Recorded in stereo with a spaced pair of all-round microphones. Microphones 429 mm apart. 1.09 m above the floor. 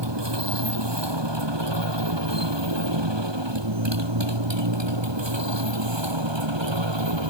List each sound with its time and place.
0.0 s a motorcycle: 75° right (ahead or behind); by 7.3 s 90° right